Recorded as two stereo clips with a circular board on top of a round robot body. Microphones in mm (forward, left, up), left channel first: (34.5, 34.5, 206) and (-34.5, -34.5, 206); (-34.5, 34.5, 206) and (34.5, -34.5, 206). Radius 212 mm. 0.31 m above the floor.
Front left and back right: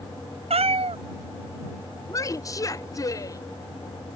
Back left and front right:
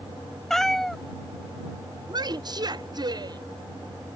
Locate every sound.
0.5 s a cat meowing: 140° right
2.1 s a woman speaking: 5° right